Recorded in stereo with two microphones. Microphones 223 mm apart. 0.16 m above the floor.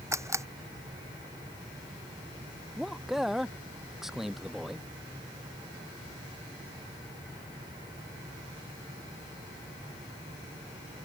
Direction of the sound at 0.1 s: 10° right (ahead or behind).